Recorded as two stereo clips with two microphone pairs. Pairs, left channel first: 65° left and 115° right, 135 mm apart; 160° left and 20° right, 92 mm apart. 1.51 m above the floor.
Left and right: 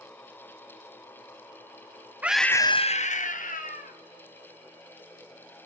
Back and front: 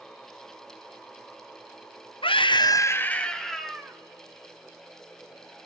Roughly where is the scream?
Behind.